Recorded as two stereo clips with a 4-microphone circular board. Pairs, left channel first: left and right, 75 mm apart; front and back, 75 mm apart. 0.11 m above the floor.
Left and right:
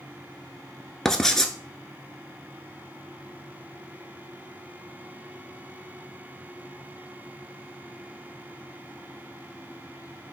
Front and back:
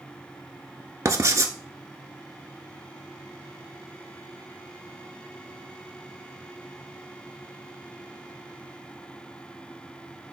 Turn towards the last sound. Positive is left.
turn(degrees=170)